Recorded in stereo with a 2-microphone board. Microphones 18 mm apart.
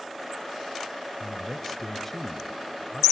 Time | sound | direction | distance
1.2 | a man speaking | 15° left (ahead or behind) | 0.9 m